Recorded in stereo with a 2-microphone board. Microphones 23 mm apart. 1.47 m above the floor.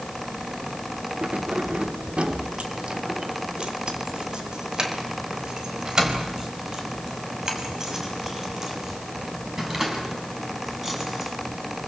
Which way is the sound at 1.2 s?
70° right (ahead or behind).